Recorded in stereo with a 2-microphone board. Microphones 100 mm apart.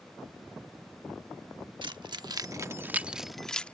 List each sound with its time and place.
1.8 s keys jangling: 55° right (ahead or behind); by 3.7 s 15° left (ahead or behind)